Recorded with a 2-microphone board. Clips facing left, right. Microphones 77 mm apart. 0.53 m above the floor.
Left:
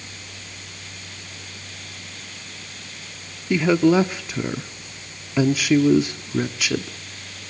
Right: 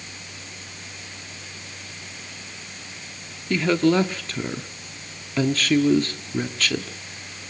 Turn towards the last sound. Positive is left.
turn(degrees=10)  # may be behind; listen again after turning